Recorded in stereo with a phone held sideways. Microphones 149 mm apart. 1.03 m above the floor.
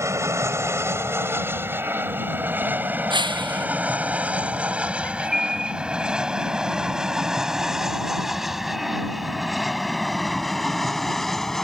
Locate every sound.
0.0 s an aircraft: 20° right (ahead or behind); by 11.7 s 5° left (ahead or behind)
3.1 s breaking glass: 30° right (ahead or behind)
5.0 s a bird: 85° right